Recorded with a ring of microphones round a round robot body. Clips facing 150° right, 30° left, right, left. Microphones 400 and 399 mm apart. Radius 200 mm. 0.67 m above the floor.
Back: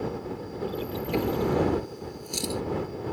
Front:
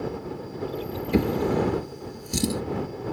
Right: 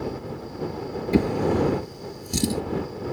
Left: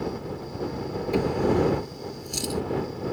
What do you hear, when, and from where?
1.1 s a drawer: 30° right